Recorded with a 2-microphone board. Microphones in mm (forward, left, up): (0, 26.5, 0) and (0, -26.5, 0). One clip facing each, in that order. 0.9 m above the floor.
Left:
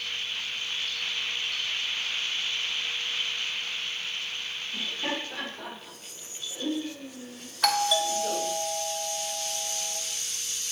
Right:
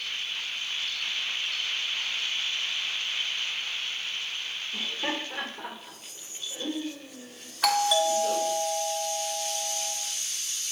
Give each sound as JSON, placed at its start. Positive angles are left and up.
{"t": 4.7, "sound": "laughter", "side_deg": -15, "distance_m": 2.5}
{"t": 7.6, "sound": "a doorbell", "side_deg": -5, "distance_m": 1.3}